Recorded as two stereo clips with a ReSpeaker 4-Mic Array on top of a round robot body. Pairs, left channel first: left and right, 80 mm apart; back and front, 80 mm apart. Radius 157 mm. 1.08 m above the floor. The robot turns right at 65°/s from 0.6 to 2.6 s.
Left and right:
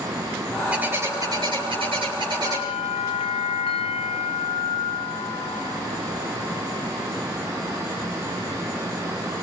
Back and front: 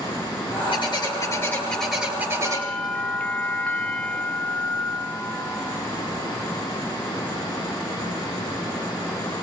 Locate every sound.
0.7 s a bird: 165° right, 8.5 m; by 2.7 s 40° right, 8.5 m
2.5 s a bell: 95° left, 0.6 m; by 5.8 s 105° left, 0.6 m